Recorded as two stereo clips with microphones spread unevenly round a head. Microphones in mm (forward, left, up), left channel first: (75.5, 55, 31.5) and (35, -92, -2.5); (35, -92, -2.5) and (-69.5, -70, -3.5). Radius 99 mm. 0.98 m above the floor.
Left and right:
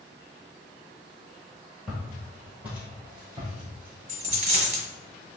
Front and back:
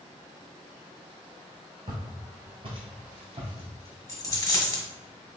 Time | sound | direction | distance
1.9 | footsteps | 145° left | 1.2 m
4.1 | a dropped coin | 70° right | 1.5 m